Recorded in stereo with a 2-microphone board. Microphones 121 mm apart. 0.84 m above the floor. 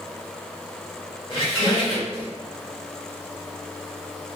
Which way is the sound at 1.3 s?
40° left (ahead or behind).